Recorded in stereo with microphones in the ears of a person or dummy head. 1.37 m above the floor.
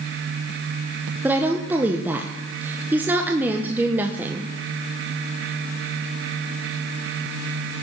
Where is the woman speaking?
5° right (ahead or behind), 1.2 m.